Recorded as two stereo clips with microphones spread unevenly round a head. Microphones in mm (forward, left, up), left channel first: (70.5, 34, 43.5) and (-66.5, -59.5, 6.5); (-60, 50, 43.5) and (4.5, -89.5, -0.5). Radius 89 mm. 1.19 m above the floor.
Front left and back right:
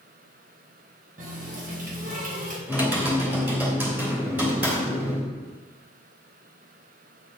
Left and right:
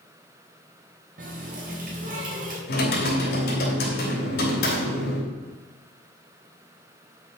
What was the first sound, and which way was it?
A running tap, 100° right.